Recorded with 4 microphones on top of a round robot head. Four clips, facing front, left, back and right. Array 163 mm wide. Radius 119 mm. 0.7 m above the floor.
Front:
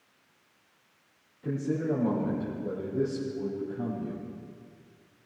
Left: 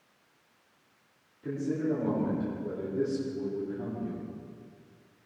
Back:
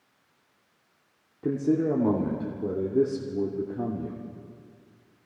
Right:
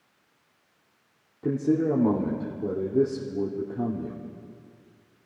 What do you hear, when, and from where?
1.4 s a man speaking: 135° right, 2.5 m